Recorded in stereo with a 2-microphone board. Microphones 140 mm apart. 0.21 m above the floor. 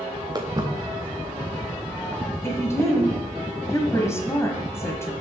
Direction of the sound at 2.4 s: 20° left (ahead or behind).